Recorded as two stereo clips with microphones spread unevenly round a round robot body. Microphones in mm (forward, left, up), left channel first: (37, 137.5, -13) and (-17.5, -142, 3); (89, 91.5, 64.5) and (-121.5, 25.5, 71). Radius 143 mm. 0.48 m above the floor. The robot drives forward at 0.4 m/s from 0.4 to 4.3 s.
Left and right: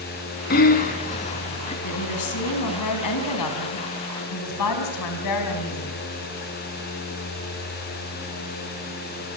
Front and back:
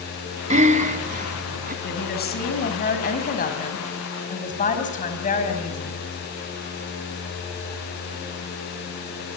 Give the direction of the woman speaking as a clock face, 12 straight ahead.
10 o'clock.